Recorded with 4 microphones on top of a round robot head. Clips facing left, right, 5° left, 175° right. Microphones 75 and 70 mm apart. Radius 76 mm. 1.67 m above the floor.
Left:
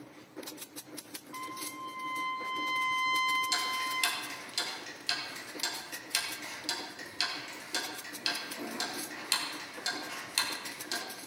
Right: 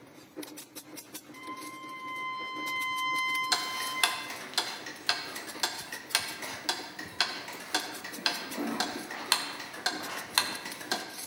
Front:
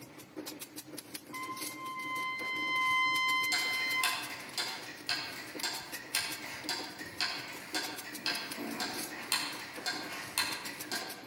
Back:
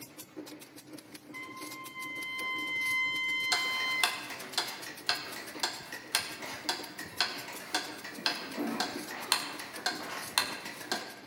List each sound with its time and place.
1.3 s a trumpet: 50° left, 2.5 m
3.5 s ticking: 140° right, 0.5 m